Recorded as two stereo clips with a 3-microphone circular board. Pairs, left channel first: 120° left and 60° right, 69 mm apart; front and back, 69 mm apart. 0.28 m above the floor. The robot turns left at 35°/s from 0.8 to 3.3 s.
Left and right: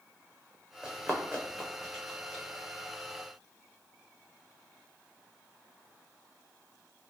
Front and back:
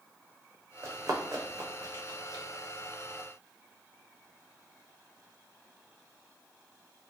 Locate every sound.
0.8 s running footsteps: 135° right, 0.8 m; by 2.4 s 160° right, 1.9 m